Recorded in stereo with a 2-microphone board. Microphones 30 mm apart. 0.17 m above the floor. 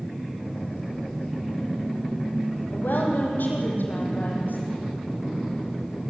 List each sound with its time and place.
2.7 s a woman speaking: 80° left, 7 m